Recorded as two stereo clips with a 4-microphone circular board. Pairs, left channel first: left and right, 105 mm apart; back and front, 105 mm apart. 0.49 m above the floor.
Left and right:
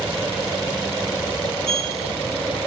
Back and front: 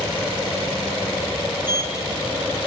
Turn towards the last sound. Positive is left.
turn(degrees=-70)